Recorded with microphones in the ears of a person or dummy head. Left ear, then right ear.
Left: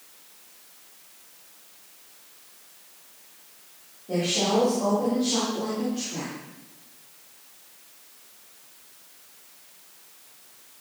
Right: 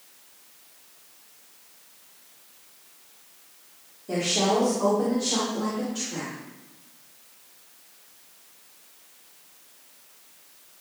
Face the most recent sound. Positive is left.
turn(degrees=-70)  # may be behind; listen again after turning